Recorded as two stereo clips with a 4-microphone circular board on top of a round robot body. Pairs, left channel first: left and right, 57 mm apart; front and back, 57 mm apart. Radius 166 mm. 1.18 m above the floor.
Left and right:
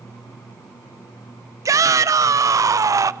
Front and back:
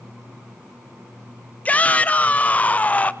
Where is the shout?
65° right, 1.0 m.